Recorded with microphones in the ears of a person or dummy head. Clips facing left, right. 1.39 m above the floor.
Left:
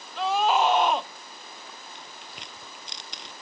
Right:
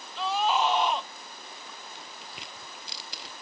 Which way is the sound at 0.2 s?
55° left (ahead or behind).